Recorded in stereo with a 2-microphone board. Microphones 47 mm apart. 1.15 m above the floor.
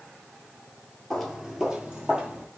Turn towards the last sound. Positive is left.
turn(degrees=-25)  # may be behind; listen again after turning